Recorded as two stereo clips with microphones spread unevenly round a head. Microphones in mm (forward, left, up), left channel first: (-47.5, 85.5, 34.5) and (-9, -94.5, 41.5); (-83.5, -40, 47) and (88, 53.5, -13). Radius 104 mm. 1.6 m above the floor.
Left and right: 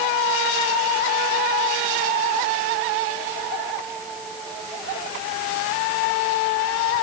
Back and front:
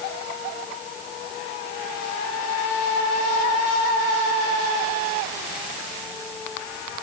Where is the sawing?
No sawing in this recording.